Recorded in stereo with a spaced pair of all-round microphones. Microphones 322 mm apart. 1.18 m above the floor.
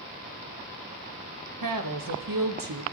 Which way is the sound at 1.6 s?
75° right (ahead or behind).